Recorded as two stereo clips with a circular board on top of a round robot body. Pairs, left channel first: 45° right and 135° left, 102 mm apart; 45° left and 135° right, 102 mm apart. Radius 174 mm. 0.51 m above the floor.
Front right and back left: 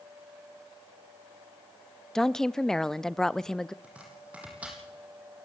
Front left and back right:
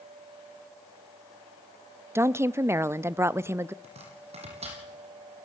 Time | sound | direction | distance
2.1 | a woman speaking | 125° right | 0.7 m
3.8 | chopping | 150° right | 5 m